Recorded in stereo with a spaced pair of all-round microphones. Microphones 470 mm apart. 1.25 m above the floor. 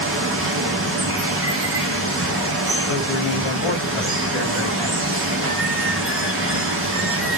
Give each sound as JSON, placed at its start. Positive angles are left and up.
{"t": 0.0, "sound": "running water", "side_deg": -30, "distance_m": 0.9}
{"t": 2.9, "sound": "a man speaking", "side_deg": 75, "distance_m": 1.2}